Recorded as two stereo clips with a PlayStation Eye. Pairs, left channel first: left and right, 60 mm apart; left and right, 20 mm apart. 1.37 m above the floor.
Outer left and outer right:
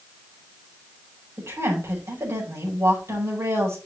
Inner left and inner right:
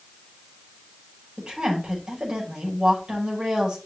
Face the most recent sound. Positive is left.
turn(degrees=-55)  # may be behind; listen again after turning